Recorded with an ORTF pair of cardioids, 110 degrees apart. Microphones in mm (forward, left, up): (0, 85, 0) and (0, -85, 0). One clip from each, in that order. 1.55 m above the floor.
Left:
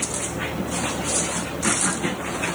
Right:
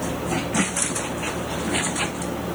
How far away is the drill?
I don't hear a drill.